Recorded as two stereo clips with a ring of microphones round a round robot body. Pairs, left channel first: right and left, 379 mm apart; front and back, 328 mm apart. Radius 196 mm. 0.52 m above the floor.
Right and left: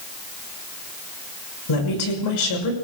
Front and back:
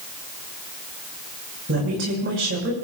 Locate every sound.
1.7 s a woman speaking: 120° right, 6.5 m